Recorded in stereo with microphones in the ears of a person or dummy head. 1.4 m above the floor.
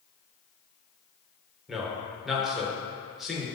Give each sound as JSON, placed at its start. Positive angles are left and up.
{"t": 1.7, "sound": "a man speaking", "side_deg": 0, "distance_m": 1.5}